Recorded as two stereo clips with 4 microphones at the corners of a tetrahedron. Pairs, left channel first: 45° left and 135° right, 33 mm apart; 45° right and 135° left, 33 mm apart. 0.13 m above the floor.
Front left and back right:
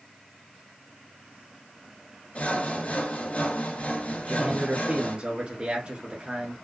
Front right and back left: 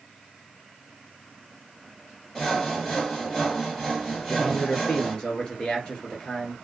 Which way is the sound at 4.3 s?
95° right.